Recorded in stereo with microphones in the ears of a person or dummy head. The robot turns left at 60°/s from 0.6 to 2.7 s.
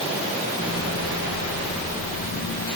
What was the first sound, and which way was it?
Only background noise.